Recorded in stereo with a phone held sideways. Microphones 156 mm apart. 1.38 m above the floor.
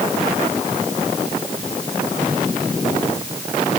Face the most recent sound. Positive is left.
No sound to turn to.